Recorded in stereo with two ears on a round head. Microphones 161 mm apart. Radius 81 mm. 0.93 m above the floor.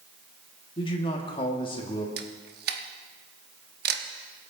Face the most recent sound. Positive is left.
turn(degrees=-55)  # may be behind; listen again after turning